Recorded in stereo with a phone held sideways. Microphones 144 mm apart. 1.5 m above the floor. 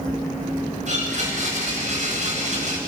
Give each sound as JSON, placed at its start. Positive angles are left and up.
{"t": 0.9, "sound": "a blender", "side_deg": -55, "distance_m": 9.5}